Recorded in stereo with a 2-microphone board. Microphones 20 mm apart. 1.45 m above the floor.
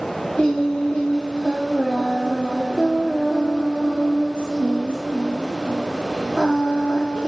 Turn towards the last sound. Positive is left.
turn(degrees=40)  # may be behind; listen again after turning